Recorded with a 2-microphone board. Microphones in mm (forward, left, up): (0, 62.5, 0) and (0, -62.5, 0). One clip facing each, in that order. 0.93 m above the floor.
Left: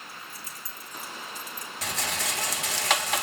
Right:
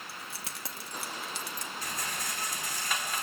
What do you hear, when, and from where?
0.1 s keys jangling: 75° right (ahead or behind), 1.1 m
1.8 s a rattle: 85° left, 0.8 m